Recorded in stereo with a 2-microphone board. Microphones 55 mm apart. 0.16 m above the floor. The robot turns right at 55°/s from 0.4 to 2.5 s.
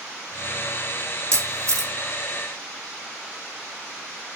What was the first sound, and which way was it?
A camera shutter, 70° right (ahead or behind).